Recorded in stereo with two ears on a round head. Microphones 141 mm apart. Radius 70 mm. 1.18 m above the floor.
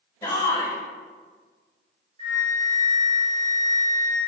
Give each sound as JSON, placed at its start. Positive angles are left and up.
{"t": 0.2, "sound": "a shout", "side_deg": 20, "distance_m": 1.4}
{"t": 2.2, "sound": "a flute", "side_deg": -40, "distance_m": 2.5}